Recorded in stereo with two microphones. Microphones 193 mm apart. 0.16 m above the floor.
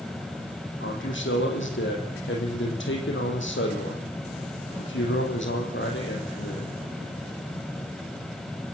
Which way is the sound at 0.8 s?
75° left (ahead or behind).